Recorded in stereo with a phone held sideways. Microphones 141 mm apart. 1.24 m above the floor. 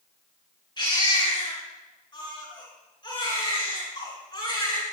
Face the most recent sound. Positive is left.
turn(degrees=30)  # may be behind; listen again after turning